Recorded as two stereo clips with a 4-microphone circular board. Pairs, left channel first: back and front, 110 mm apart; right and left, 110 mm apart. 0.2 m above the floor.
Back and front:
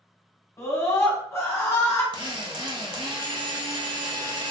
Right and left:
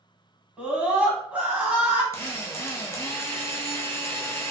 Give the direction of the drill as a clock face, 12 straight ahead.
1 o'clock.